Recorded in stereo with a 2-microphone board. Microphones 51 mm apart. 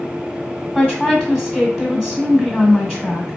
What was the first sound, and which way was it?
A woman speaking, 5° right (ahead or behind).